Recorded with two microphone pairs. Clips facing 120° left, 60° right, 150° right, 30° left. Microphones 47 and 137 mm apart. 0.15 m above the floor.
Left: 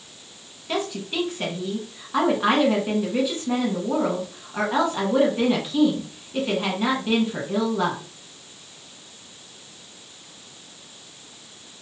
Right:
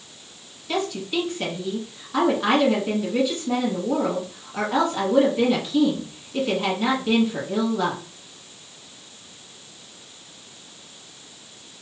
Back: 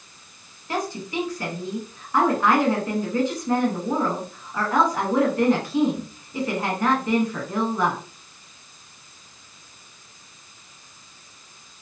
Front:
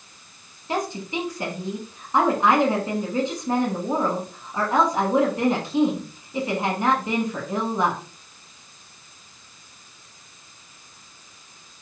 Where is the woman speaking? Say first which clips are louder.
Right 2 dB, front 1 dB; 60° left, 1.1 m.